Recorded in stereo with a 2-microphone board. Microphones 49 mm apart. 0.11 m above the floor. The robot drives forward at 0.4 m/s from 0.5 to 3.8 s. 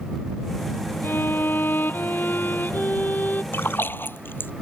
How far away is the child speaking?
I don't hear a child speaking.